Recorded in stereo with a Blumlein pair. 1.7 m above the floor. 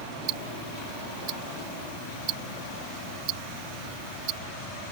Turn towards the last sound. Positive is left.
turn(degrees=-40)